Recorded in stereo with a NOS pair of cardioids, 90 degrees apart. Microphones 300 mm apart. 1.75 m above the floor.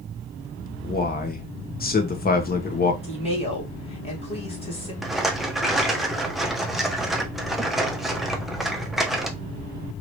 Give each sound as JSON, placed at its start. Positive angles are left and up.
{"t": 0.8, "sound": "a man speaking", "azimuth_deg": 30, "distance_m": 1.2}
{"t": 3.0, "sound": "a woman speaking", "azimuth_deg": 20, "distance_m": 2.0}
{"t": 5.0, "sound": "a rattle", "azimuth_deg": 0, "distance_m": 0.9}